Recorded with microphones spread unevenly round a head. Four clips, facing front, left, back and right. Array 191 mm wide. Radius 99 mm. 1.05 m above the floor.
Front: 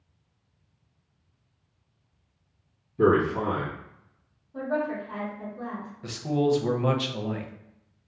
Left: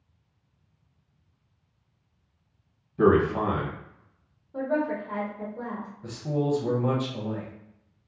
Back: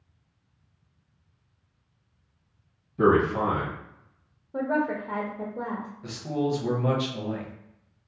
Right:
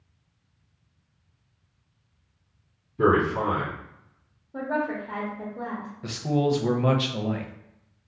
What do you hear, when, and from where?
3.0 s a man speaking: 130° left, 1.5 m
4.5 s a woman speaking: 175° right, 0.7 m
6.0 s a man speaking: 70° right, 0.6 m